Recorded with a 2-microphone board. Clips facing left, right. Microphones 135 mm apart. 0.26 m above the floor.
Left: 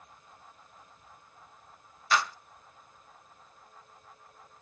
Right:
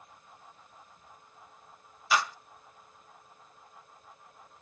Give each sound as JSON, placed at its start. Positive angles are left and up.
{"t": 2.1, "sound": "a clap", "side_deg": -10, "distance_m": 0.8}